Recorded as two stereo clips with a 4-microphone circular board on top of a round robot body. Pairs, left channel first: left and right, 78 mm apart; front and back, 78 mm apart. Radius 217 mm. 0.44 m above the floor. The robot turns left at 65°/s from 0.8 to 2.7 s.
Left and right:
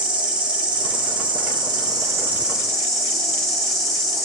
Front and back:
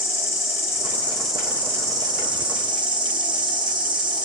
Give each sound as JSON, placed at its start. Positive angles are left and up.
{"t": 0.0, "sound": "an insect", "azimuth_deg": -60, "distance_m": 1.3}